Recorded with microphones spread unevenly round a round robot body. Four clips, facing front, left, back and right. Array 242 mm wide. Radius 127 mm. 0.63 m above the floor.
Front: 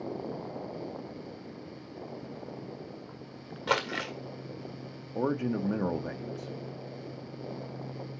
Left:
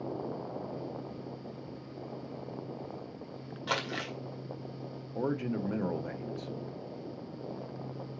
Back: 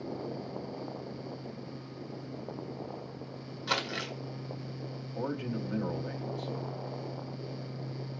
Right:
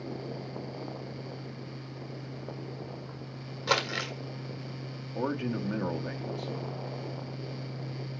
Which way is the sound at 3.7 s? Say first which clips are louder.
Right 5 dB, front 4 dB; 25° right.